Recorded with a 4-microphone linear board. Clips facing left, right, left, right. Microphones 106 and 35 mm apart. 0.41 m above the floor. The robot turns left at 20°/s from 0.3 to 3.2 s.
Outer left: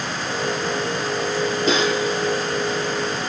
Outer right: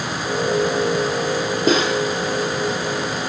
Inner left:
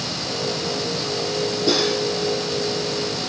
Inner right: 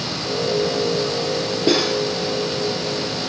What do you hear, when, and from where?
1.7 s cutlery clinking: 45° right (ahead or behind), 6 m; by 2.0 s 35° right (ahead or behind), 6 m